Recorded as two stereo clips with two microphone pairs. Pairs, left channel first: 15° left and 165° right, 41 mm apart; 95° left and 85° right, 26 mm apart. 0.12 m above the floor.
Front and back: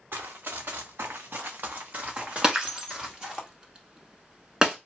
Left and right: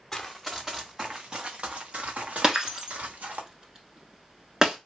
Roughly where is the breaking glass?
Behind right.